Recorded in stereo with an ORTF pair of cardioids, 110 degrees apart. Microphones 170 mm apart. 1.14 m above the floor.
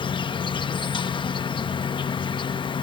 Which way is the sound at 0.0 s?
30° left.